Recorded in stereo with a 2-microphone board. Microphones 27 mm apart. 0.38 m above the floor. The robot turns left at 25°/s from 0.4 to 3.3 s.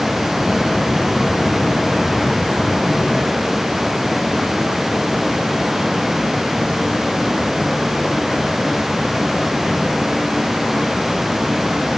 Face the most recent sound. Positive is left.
No sound to turn to.